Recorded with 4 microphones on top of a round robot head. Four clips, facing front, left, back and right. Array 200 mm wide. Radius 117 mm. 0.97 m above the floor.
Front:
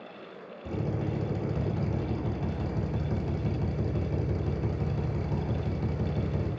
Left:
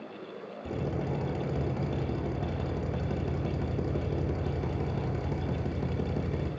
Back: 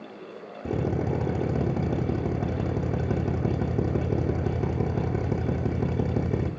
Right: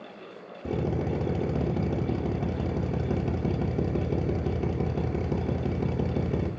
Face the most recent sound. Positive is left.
turn(degrees=-150)